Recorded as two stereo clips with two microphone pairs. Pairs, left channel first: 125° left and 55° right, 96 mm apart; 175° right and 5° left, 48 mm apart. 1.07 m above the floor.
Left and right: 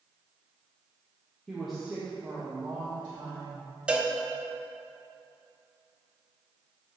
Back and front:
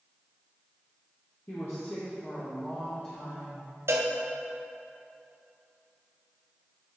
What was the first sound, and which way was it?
A woman speaking, 150° right.